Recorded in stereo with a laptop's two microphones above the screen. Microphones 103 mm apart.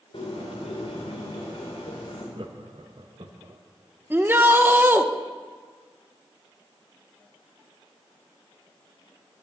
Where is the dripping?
No dripping in this recording.